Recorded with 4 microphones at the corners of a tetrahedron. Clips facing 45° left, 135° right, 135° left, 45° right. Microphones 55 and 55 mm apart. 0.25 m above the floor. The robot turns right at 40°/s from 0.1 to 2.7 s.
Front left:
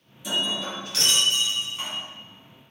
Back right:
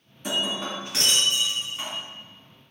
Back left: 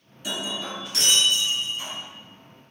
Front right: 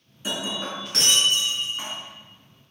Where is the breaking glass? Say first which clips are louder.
Even, front right 1 dB; 100° right, 1.7 m; by 1.9 s 35° right, 1.7 m.